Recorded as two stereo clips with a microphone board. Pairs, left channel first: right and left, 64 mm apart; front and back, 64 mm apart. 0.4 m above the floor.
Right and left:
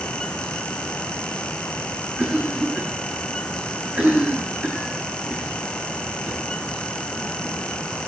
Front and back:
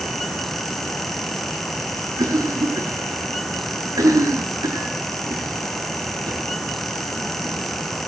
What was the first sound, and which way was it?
A cough, 155° left.